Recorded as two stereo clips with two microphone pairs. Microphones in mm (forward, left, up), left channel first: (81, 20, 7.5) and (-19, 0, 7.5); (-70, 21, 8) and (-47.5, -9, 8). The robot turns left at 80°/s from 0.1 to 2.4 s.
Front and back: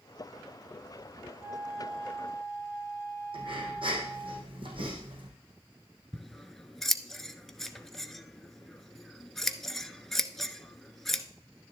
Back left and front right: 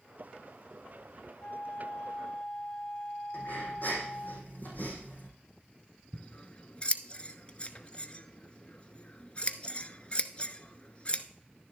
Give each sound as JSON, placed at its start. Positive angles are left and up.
{"t": 1.4, "sound": "a flute", "azimuth_deg": 140, "distance_m": 3.5}
{"t": 3.3, "sound": "breathing", "azimuth_deg": 160, "distance_m": 4.5}
{"t": 6.1, "sound": "scissors", "azimuth_deg": 95, "distance_m": 0.8}